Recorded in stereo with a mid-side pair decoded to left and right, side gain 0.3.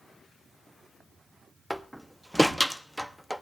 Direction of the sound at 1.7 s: 5° right.